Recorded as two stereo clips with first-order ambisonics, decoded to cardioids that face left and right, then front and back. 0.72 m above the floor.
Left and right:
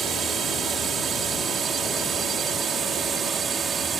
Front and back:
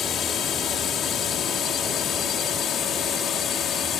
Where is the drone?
40° right.